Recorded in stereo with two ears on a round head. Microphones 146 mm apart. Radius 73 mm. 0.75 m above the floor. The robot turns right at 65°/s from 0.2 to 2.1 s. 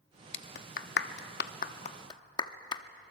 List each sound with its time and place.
0.3 s a clap: 35° left (ahead or behind), 0.9 m; by 2.8 s 30° left (ahead or behind), 0.9 m